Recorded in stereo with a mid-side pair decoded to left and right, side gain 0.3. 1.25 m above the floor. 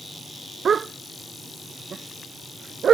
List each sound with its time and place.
0.7 s a dog barking: 65° right; by 3.0 s 75° right